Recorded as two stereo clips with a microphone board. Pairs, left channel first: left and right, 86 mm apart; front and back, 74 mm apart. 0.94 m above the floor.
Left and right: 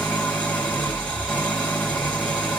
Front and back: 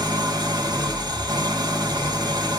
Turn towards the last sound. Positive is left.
turn(degrees=165)